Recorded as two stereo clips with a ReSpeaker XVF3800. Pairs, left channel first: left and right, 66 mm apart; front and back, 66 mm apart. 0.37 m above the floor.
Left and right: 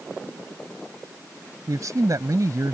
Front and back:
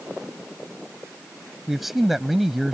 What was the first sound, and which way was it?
A man speaking, 95° right.